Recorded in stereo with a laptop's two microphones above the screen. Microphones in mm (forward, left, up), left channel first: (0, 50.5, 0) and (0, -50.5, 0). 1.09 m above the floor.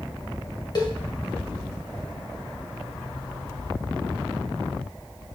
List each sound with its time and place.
0.8 s a cowbell: 45° left (ahead or behind), 1.6 m